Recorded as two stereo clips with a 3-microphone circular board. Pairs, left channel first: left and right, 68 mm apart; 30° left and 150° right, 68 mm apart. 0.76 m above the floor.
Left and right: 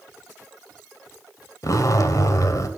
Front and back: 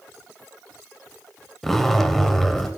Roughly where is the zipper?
Behind left.